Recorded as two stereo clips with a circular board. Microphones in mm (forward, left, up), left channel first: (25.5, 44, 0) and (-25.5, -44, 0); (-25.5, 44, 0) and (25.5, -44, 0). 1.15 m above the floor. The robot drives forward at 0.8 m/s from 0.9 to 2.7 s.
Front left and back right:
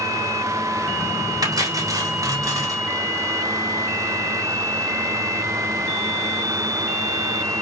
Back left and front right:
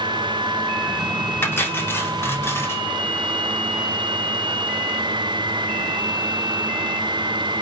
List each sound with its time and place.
1.4 s cutlery clinking: 170° right, 2 m; by 2.8 s 175° right, 3 m